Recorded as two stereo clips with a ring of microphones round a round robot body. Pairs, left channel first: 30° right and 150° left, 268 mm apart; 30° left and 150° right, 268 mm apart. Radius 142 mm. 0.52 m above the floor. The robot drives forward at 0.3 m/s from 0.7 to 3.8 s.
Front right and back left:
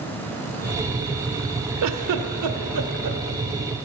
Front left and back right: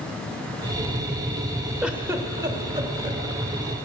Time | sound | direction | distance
1.8 | a giggle | 120° left | 0.7 m